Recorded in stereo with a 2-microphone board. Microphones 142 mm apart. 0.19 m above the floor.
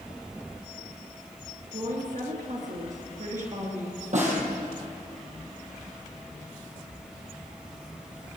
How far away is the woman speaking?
About 2.5 m.